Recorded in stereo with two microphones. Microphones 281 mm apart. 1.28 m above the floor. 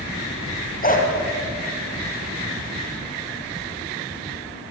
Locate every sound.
0.8 s a dog barking: 30° left (ahead or behind), 4.5 m